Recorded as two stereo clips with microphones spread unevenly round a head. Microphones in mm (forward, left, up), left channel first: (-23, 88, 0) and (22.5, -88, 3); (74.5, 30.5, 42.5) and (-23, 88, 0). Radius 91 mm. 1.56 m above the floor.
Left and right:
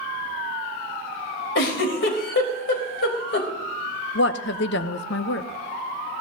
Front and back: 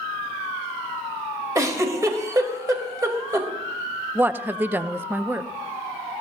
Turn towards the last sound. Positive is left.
turn(degrees=80)